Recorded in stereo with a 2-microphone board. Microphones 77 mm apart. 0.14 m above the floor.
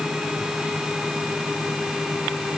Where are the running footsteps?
I don't hear running footsteps.